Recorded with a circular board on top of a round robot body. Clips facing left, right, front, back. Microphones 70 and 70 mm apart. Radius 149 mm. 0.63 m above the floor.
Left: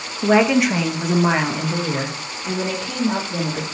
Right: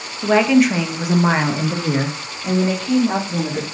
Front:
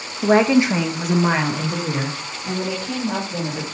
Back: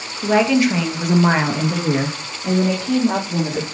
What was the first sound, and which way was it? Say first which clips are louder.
A woman speaking: right 1 dB, front 1 dB; 15° left.